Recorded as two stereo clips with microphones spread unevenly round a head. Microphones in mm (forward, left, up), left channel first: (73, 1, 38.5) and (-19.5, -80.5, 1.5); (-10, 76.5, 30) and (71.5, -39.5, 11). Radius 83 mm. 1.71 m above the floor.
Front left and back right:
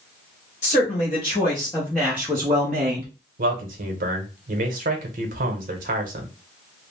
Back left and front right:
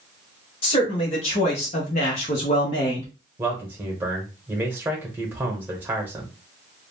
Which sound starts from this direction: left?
A man speaking, at 0.6 s.